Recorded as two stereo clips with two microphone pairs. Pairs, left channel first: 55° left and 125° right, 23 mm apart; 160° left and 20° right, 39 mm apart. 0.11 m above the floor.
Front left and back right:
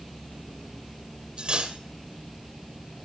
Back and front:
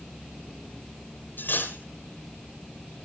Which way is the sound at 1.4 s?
170° right.